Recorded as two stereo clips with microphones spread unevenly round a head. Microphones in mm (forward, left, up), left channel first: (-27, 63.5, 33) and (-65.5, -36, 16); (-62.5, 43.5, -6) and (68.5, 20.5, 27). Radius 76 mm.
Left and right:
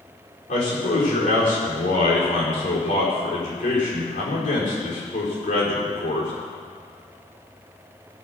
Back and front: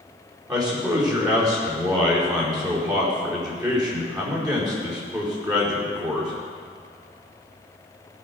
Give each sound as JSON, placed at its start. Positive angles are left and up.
{"t": 0.5, "sound": "a man speaking", "azimuth_deg": 55, "distance_m": 4.5}